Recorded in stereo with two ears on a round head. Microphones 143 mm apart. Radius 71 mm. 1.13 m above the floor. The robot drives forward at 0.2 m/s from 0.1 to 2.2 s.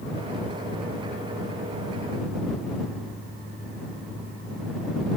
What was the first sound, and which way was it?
Only background noise.